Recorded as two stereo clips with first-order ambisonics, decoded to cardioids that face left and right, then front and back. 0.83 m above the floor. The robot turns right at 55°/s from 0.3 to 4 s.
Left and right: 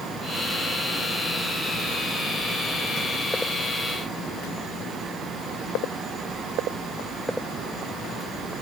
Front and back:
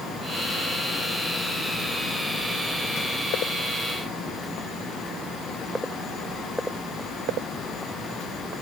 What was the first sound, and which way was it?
Only background noise.